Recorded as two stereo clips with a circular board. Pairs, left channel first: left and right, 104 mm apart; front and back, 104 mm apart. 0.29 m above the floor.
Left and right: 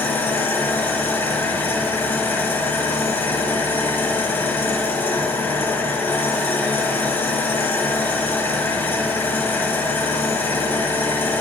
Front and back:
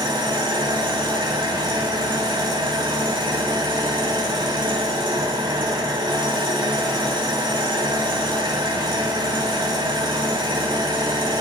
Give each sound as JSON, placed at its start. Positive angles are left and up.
{"t": 0.0, "sound": "an engine running", "azimuth_deg": 155, "distance_m": 1.0}